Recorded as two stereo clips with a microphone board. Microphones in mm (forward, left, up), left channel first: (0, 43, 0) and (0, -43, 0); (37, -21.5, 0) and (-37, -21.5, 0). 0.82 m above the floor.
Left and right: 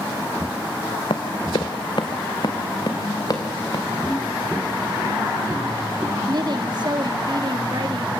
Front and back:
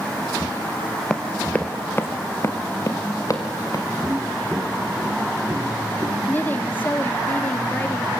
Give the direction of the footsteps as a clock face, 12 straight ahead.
7 o'clock.